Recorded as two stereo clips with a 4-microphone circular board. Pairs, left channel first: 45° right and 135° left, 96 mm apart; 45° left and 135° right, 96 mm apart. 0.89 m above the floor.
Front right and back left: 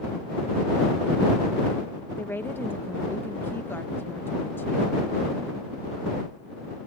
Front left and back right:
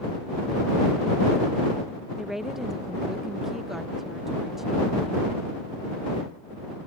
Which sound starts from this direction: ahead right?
A woman speaking, at 2.2 s.